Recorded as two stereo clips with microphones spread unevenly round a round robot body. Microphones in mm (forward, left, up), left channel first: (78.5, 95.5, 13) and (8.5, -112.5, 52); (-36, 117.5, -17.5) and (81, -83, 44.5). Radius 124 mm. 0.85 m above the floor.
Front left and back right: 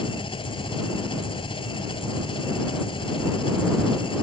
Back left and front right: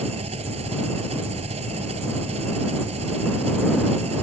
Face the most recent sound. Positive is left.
turn(degrees=5)